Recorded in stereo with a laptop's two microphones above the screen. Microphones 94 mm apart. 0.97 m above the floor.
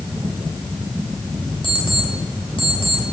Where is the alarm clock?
65° left (ahead or behind), 3 m.